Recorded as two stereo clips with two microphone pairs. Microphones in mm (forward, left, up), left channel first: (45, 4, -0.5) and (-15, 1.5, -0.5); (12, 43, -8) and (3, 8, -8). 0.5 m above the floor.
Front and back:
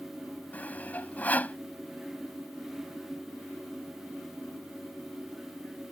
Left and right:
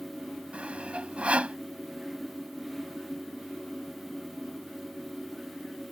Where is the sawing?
55° right.